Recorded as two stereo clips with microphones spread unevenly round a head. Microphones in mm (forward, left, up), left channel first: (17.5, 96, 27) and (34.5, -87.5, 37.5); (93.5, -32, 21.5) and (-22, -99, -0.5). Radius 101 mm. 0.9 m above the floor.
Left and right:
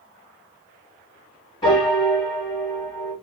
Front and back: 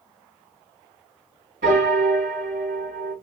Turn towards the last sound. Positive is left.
turn(degrees=165)